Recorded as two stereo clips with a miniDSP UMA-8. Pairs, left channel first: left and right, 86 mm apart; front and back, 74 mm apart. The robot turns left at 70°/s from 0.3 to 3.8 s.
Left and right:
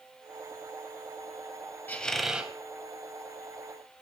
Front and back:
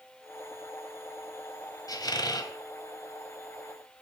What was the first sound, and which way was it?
A squeak, 25° left.